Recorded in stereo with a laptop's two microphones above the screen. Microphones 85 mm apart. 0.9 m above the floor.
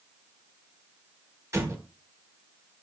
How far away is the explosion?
About 1.4 m.